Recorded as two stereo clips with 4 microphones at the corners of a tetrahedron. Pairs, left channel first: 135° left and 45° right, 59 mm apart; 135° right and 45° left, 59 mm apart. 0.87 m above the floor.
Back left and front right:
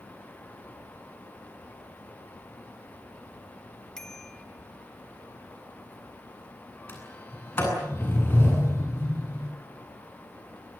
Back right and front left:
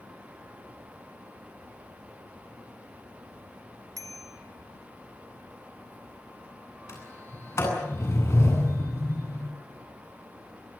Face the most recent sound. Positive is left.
turn(degrees=-175)